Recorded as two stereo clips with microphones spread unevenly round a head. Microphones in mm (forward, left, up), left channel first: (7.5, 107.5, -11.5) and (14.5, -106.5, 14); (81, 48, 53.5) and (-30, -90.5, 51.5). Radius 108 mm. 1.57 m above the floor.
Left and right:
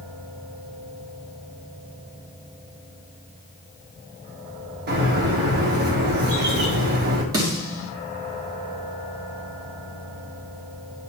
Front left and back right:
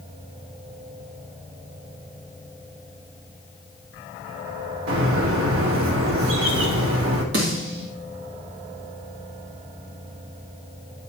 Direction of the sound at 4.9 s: 130° right.